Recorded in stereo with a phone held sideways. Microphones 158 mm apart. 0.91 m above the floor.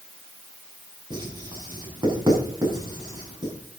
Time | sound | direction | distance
1.1 | writing | 30° right (ahead or behind) | 5 m